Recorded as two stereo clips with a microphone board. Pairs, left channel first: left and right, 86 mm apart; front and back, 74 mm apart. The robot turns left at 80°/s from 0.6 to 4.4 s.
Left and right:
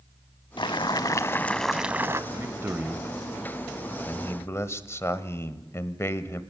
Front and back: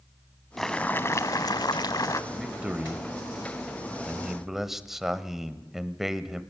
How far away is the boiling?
About 0.7 m.